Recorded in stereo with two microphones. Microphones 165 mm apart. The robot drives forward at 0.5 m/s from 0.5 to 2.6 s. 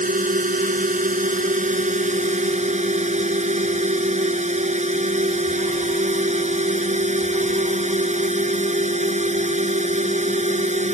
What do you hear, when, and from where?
0.0 s a drone: 55° right (ahead or behind); by 11.0 s 45° right (ahead or behind)